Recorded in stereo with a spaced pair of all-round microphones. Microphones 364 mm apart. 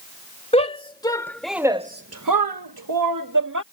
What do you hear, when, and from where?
0.5 s a shout: 15° left (ahead or behind); by 3.6 s 55° right (ahead or behind)